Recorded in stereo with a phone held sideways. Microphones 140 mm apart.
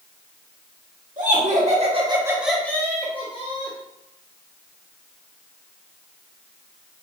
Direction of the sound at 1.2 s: 70° right (ahead or behind).